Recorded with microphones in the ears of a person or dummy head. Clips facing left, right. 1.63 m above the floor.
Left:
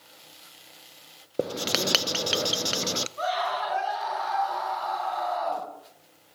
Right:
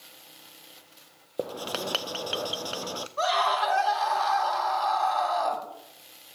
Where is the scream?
75° right (ahead or behind), 6 m.